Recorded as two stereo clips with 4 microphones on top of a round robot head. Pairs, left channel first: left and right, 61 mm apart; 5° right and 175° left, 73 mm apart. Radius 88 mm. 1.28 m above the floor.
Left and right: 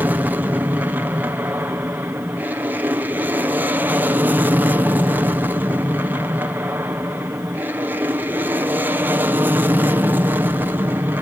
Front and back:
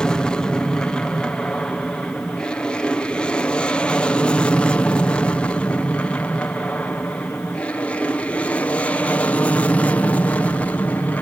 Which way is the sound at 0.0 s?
75° right.